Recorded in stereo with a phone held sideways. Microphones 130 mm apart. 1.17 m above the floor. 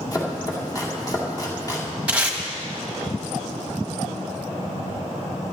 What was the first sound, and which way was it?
Chopping, 25° left (ahead or behind).